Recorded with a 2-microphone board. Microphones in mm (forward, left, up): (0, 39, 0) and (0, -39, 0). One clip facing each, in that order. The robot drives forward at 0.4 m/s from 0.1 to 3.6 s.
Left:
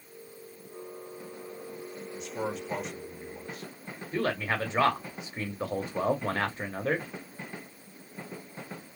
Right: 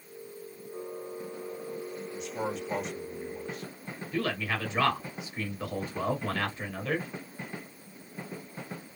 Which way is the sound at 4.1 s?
35° left (ahead or behind).